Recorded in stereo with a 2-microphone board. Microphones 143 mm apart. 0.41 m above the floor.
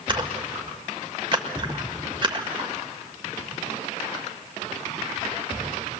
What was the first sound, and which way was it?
A splash, 35° right (ahead or behind).